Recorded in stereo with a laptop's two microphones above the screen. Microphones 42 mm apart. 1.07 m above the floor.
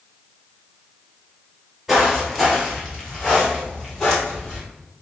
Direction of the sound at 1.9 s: 10° right (ahead or behind).